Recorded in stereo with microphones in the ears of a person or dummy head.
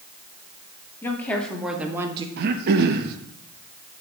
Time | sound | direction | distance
1.0 | a woman speaking | 10° left (ahead or behind) | 2 m
2.4 | throat clearing | 55° right (ahead or behind) | 0.9 m